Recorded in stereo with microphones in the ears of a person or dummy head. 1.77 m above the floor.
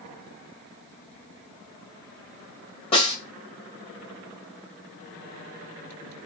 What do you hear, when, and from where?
2.9 s a snare drum: 40° left (ahead or behind), 2 m